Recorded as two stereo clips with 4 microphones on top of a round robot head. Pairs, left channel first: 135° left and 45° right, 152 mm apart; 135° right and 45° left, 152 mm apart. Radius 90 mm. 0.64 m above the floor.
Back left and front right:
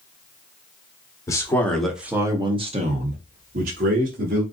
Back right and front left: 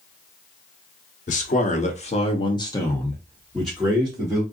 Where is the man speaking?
160° right, 1.1 m; by 4.4 s 35° right, 1.7 m.